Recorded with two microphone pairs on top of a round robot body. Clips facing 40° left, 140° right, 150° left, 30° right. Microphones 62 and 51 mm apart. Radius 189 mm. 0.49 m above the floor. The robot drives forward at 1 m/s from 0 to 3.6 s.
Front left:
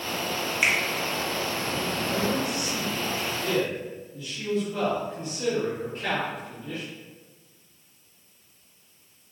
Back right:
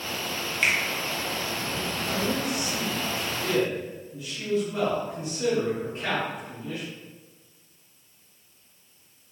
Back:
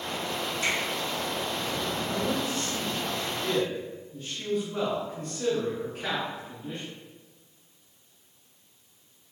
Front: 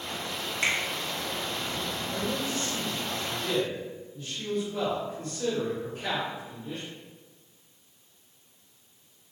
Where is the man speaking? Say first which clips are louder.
Even, back 1 dB; 130° left, 1.7 m; by 6.8 s 155° left, 3 m.